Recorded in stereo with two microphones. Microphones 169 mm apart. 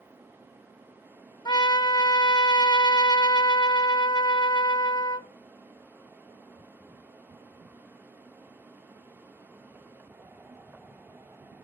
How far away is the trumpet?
About 0.6 m.